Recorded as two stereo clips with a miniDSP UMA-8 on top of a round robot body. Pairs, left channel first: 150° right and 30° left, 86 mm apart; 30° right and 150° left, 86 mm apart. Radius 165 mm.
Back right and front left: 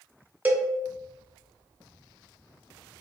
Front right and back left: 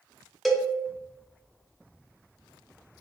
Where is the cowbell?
60° left, 0.9 m.